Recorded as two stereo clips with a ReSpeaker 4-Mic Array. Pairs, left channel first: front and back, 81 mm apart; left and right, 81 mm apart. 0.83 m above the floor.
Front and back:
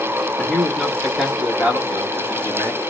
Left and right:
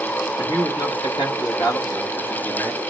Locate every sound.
0.4 s a man speaking: 75° left, 1.6 m; by 2.8 s 150° left, 1.5 m